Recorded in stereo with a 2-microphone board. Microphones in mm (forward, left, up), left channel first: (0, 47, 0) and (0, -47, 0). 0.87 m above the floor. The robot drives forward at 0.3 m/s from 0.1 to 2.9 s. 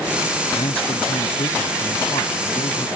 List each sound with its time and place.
0.5 s a man speaking: 85° left; by 2.9 s 80° left